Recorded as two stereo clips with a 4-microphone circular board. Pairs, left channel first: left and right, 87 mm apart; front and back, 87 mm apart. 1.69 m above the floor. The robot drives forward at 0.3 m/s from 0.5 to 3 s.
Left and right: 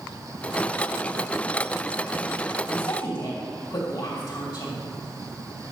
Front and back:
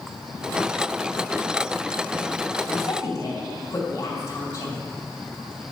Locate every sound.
2.7 s a woman speaking: 50° left, 3 m